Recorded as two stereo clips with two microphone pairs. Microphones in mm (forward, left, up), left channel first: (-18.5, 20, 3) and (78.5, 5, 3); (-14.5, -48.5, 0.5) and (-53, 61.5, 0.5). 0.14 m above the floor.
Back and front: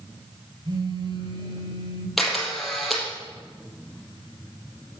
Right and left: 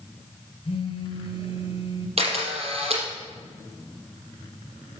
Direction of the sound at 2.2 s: 80° left.